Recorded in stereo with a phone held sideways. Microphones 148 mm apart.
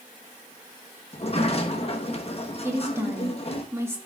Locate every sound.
1.1 s a sliding door: 45° left (ahead or behind), 1.1 m
2.6 s a woman speaking: 15° right (ahead or behind), 2.0 m